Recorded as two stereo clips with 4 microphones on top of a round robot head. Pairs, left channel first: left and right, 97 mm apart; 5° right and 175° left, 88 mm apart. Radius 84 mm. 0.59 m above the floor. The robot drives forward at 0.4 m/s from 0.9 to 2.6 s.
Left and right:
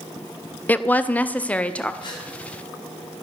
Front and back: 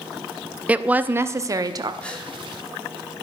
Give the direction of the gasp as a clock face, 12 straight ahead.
10 o'clock.